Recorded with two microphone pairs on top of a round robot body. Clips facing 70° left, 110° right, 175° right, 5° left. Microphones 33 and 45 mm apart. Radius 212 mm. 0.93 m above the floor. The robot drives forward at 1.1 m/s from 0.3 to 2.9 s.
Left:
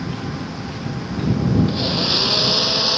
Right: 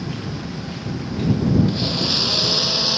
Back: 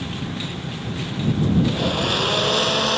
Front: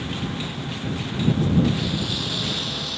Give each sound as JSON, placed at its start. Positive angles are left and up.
{"t": 1.7, "sound": "a blender", "azimuth_deg": 145}